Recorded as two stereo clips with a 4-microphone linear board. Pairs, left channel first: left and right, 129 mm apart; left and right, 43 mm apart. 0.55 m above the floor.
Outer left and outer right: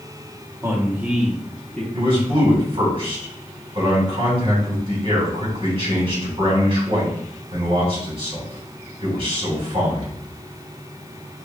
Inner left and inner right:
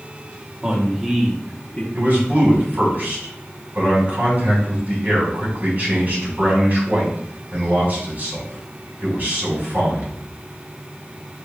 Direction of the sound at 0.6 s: 25° right (ahead or behind).